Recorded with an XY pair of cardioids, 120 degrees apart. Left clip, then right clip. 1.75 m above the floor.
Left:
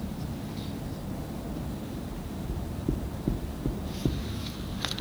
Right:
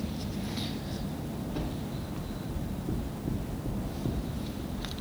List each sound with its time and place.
2.5 s knocking: 40° left, 1.2 m